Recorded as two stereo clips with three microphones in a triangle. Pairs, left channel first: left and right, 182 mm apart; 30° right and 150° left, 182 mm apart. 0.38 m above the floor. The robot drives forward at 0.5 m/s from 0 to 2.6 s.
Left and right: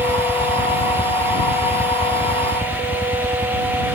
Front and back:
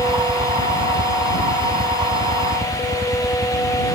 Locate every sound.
0.0 s a helicopter: 130° left; by 4.0 s 135° left